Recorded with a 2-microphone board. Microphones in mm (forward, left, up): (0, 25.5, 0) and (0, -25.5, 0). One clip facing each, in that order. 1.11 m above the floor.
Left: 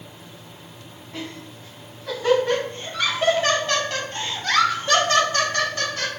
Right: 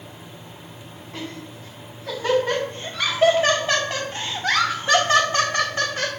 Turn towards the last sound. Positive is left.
turn(degrees=-25)  # may be behind; listen again after turning